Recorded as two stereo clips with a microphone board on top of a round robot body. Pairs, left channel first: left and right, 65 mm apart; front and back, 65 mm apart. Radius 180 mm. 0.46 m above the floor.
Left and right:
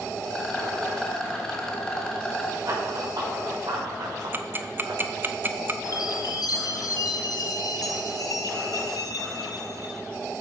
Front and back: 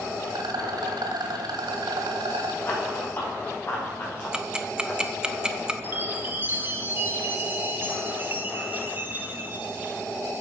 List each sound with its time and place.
0.3 s a rattle: 170° left, 1.4 m
2.6 s running footsteps: 60° right, 5.5 m; by 5.1 s 70° right, 6 m
4.3 s ticking: 110° right, 1.1 m
5.8 s a chime: 120° left, 1.1 m